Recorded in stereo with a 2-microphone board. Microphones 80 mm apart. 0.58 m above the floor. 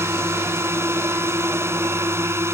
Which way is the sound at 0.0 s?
35° right (ahead or behind).